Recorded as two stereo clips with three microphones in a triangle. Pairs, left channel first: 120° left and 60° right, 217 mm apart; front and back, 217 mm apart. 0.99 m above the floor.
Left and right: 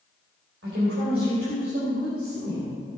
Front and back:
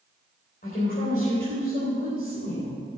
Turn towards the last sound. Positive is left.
turn(degrees=-50)